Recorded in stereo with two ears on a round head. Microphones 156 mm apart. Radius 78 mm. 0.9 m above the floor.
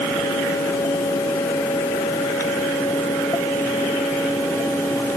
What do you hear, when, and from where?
Only background noise.